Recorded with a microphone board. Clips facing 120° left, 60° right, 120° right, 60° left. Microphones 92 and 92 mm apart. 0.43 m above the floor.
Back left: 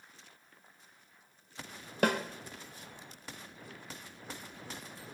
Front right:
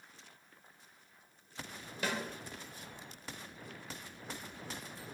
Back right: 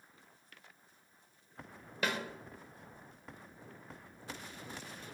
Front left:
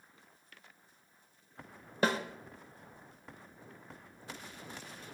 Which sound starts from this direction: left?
A snare drum, at 2.0 s.